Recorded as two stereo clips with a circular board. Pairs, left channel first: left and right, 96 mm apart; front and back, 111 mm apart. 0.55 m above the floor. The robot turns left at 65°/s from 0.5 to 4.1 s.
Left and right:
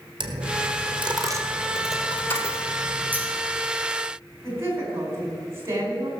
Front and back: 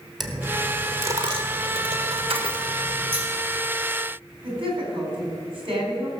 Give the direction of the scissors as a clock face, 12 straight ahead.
5 o'clock.